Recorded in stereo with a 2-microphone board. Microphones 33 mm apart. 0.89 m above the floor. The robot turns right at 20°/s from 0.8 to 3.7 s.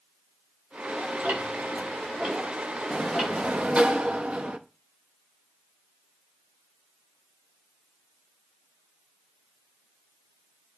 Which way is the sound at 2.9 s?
25° right (ahead or behind).